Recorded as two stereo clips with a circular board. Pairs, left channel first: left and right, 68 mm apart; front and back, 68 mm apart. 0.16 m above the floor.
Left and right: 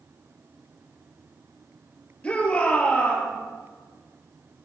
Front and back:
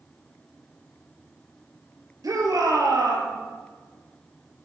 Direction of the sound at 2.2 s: 160° left.